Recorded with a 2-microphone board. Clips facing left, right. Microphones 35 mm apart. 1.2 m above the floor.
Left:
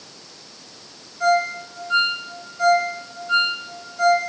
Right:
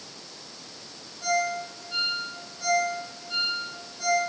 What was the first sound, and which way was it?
A ringtone, 85° left.